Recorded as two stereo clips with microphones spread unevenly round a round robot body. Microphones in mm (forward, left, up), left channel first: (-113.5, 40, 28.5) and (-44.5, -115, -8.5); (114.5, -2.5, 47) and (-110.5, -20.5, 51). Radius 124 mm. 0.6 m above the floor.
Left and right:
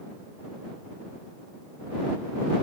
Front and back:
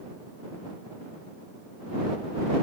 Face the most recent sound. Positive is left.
No sound to turn to.